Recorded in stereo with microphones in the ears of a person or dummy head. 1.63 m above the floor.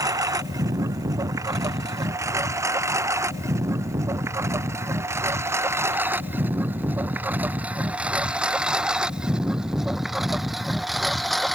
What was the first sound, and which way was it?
A lawn mower, 20° right (ahead or behind).